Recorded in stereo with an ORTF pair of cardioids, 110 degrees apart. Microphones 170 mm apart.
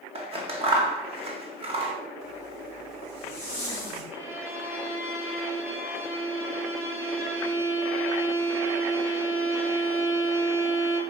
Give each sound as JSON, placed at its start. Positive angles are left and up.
{"t": 0.1, "sound": "scissors", "azimuth_deg": -35, "distance_m": 1.8}
{"t": 2.2, "sound": "a zipper", "azimuth_deg": -40, "distance_m": 4.5}
{"t": 4.1, "sound": "a violin", "azimuth_deg": -15, "distance_m": 1.6}